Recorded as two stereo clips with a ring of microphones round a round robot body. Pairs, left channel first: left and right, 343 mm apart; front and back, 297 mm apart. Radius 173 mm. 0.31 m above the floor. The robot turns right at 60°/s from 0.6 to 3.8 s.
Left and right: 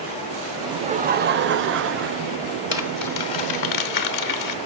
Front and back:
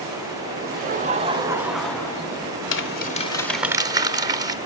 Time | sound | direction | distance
0.6 | laughter | 160° right | 1.0 m
2.7 | crumpling | 40° left | 1.6 m